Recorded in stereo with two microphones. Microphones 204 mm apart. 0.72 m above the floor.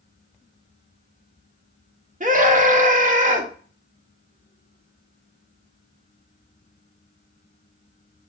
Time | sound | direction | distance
2.2 | a scream | 40° right (ahead or behind) | 0.7 m